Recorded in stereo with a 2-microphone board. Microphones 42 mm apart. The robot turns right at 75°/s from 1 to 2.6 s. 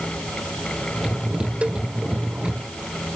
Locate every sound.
1.6 s a cowbell: 30° right (ahead or behind); by 1.8 s 15° right (ahead or behind)